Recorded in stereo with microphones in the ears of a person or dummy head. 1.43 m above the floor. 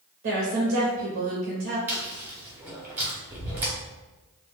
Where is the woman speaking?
40° right (ahead or behind), 0.6 m.